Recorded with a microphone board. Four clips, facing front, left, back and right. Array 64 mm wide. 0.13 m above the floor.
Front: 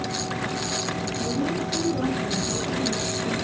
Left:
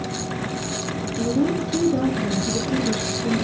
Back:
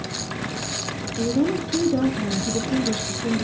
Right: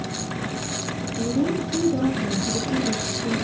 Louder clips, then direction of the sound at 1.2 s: Left 2 dB, back 7 dB; 165° left.